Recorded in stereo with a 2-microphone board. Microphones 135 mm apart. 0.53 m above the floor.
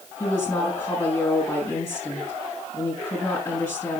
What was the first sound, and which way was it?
A woman speaking, 25° left (ahead or behind).